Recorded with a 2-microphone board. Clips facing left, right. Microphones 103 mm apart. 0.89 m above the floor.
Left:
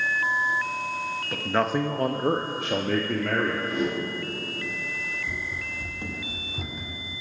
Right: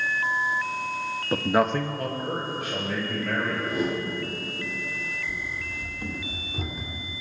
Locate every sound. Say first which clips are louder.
1.3 s a man speaking: right 3 dB; 30° right (ahead or behind), 0.7 m; by 3.7 s 85° left, 1.9 m
3.7 s a whoosh: even; 5° right (ahead or behind), 1.7 m
5.3 s running footsteps: even; 45° left (ahead or behind), 1.9 m; by 7.1 s 10° right (ahead or behind), 2 m